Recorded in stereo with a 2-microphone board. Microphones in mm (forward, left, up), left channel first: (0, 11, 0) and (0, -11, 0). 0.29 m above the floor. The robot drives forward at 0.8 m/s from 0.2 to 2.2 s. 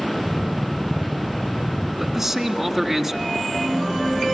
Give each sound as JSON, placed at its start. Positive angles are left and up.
{"t": 2.0, "sound": "a man speaking", "side_deg": -20, "distance_m": 2.5}